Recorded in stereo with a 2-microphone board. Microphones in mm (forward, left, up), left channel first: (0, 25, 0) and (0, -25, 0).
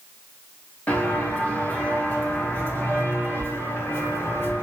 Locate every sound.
0.9 s footsteps: 30° left (ahead or behind), 4 m; by 4.6 s 50° left (ahead or behind), 6.5 m